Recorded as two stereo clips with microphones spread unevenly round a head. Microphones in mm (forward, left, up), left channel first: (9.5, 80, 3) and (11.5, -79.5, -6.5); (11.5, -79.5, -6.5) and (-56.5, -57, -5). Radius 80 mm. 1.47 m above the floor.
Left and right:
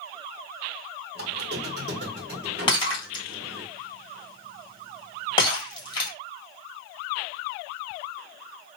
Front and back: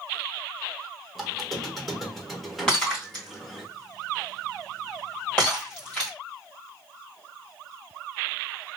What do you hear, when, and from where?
1.1 s a squeak: 110° right, 1.0 m
2.7 s breaking glass: 60° left, 1.8 m